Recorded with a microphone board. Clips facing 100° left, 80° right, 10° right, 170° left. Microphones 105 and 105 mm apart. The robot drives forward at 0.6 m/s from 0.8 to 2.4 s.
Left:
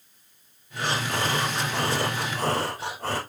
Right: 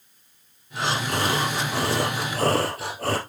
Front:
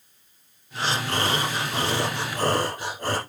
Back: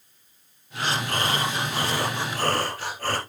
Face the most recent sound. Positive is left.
turn(degrees=-85)